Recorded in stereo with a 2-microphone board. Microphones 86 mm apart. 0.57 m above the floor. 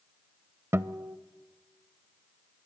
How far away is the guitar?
About 0.6 m.